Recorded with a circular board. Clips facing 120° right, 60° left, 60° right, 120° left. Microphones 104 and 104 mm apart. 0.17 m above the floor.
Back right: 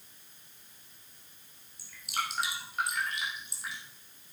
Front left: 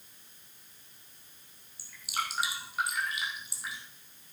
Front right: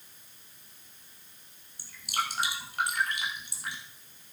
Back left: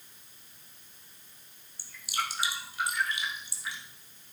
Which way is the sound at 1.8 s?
25° right.